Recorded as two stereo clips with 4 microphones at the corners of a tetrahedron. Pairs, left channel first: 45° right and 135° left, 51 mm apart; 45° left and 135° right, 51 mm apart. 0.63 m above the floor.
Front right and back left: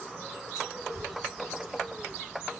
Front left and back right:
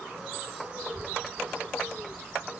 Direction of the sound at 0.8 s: 15° right.